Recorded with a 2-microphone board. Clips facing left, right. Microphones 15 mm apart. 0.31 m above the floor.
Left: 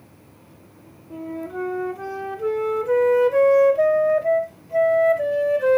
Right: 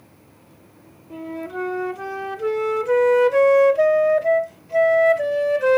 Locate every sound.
1.1 s a flute: 35° right (ahead or behind), 0.5 m